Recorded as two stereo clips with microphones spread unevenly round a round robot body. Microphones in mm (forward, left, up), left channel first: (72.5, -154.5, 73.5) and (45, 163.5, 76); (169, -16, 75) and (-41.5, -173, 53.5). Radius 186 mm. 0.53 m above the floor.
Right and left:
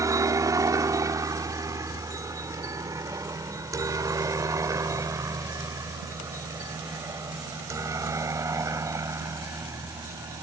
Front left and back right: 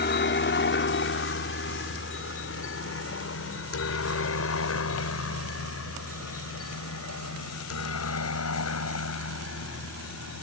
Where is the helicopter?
20° left; by 10.4 s 15° left.